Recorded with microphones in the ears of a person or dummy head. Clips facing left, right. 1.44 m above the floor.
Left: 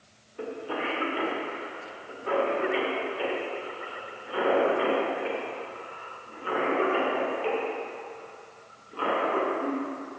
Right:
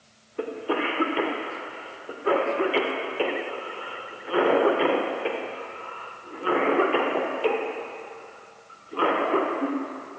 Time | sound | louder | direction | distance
0.4 | a cough | right 5 dB | 60° right (ahead or behind) | 1.0 m